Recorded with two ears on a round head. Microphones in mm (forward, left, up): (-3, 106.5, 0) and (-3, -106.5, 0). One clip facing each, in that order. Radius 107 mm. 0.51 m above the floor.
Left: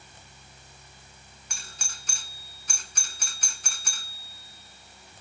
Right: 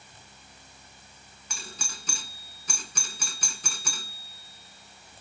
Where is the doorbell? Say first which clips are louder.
Right 7 dB; 70° right (ahead or behind).